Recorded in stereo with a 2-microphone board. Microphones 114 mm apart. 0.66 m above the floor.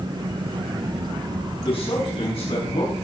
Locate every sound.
1.6 s a man speaking: 60° left (ahead or behind), 6.5 m; by 3.0 s 65° left (ahead or behind), 6 m